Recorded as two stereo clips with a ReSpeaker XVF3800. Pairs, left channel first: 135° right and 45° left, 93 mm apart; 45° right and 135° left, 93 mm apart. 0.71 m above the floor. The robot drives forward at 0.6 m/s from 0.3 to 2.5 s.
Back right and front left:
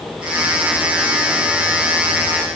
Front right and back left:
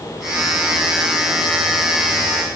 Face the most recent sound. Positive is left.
No sound to turn to.